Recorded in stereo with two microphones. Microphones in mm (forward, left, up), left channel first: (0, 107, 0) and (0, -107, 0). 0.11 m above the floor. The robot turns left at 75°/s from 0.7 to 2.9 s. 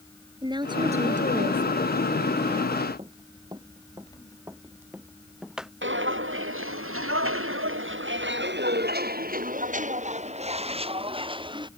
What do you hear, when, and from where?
0.4 s a woman speaking: 30° right; by 1.8 s 115° right
3.0 s running footsteps: 25° right (ahead or behind); by 5.7 s centre (ahead or behind)
5.8 s footsteps: 65° right (ahead or behind); by 11.7 s 20° right (ahead or behind)